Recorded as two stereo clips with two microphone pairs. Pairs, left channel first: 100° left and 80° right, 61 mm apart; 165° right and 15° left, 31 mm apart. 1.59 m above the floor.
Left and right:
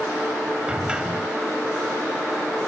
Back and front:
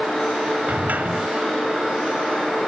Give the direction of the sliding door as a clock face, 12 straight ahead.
12 o'clock.